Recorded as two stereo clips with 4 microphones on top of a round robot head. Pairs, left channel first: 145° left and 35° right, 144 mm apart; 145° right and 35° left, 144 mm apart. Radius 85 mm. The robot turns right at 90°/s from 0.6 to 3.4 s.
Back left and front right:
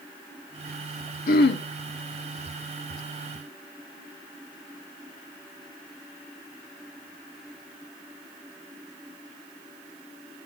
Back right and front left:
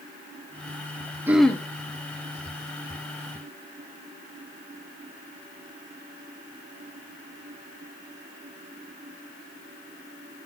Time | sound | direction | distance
1.3 | throat clearing | 110° left | 1.4 m